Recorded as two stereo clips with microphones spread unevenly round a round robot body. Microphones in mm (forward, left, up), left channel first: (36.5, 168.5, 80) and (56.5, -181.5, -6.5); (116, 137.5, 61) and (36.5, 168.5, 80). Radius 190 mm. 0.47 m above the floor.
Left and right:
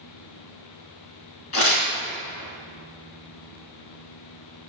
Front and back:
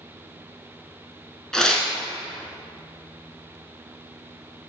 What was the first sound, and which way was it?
Tearing paper, 65° left.